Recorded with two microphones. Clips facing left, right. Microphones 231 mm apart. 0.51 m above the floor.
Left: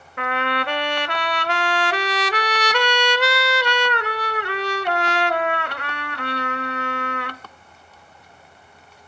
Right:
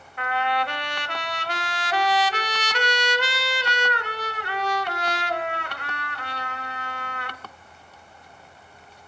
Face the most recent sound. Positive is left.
turn(degrees=80)